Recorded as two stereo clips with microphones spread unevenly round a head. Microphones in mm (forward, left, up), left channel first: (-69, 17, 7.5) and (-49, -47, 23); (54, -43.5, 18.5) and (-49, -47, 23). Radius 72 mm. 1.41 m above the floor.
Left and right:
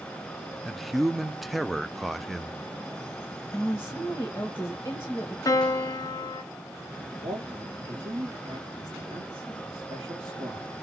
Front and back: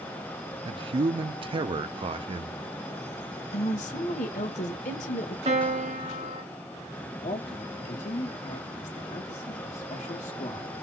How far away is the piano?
About 0.8 m.